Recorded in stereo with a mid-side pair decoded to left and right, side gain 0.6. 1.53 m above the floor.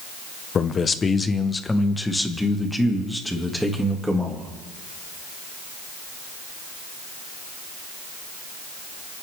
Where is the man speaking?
35° left, 1.3 m; by 4.5 s 5° right, 3.5 m.